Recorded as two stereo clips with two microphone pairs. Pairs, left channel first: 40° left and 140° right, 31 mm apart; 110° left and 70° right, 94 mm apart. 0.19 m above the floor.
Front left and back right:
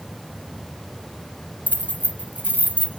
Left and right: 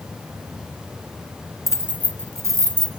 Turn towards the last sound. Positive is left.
turn(degrees=-115)